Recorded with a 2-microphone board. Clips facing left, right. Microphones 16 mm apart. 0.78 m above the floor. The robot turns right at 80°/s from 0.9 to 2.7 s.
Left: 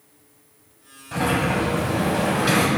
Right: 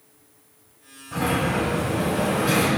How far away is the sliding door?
About 4 m.